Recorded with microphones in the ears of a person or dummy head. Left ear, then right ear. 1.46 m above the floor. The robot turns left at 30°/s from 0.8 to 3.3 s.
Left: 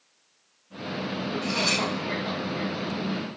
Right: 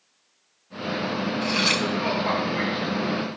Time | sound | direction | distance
1.4 | cutlery clinking | 25° right (ahead or behind) | 0.5 m